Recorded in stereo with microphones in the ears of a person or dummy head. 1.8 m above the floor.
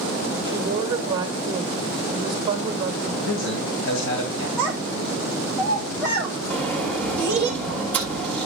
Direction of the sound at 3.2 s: 80° left.